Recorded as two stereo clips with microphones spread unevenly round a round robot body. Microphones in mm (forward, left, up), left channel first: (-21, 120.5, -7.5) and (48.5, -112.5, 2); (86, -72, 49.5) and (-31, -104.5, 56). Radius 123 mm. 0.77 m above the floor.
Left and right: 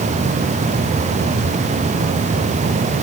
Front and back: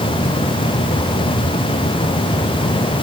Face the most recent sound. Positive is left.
No sound to turn to.